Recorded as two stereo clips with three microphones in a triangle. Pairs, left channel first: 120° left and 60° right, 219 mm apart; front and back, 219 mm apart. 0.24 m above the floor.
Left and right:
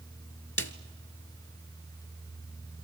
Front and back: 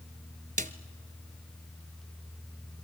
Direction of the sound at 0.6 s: 125° left.